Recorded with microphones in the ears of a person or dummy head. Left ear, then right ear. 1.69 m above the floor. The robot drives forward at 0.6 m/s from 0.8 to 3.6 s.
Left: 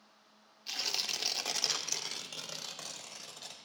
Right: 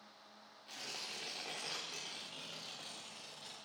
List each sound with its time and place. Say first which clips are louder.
0.7 s tearing paper: left 11 dB; 70° left (ahead or behind), 1.0 m; by 3.6 s 35° left (ahead or behind), 1.6 m